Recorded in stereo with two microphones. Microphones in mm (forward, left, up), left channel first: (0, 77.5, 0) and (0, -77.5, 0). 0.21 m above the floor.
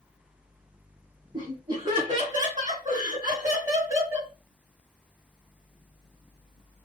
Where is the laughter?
30° right (ahead or behind), 2 m; by 4.3 s 15° right (ahead or behind), 1.6 m.